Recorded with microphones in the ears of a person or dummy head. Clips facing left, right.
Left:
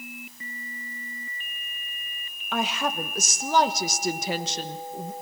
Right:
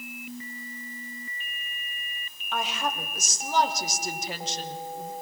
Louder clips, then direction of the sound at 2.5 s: Left 3 dB; 55° left (ahead or behind).